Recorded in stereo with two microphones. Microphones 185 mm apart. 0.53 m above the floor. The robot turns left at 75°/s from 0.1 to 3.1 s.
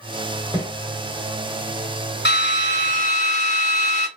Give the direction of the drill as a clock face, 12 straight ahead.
9 o'clock.